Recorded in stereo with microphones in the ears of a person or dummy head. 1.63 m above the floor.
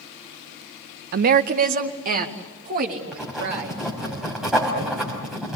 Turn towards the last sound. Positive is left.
turn(degrees=0)  # may be behind; listen again after turning